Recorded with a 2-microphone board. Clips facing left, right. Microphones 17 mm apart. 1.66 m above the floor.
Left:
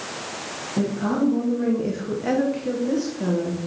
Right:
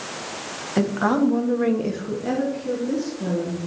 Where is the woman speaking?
75° right (ahead or behind), 1.5 m; by 3.7 s 55° left (ahead or behind), 2.5 m.